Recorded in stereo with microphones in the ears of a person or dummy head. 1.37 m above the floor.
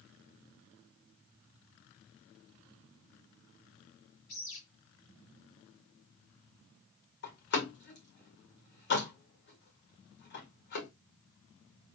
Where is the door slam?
65° left (ahead or behind), 1.8 m.